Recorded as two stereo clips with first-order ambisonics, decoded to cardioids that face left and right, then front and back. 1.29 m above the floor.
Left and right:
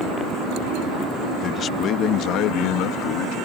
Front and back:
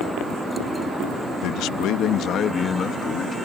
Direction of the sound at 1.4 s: 25° left.